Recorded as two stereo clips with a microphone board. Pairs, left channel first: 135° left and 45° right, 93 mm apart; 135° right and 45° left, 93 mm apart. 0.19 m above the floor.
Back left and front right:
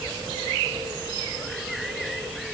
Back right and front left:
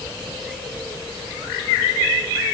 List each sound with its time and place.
Only background noise.